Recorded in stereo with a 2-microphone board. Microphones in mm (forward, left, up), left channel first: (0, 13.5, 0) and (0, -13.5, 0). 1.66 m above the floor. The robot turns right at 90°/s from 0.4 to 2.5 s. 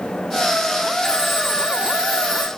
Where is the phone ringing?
150° left, 3.5 m; by 2.5 s 80° right, 3.5 m.